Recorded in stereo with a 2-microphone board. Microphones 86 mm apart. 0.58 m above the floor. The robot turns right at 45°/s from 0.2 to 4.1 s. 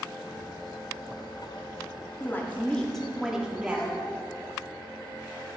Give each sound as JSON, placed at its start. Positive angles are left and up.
{"t": 2.2, "sound": "a woman speaking", "azimuth_deg": 135, "distance_m": 0.8}
{"t": 3.6, "sound": "a child speaking", "side_deg": 5, "distance_m": 1.1}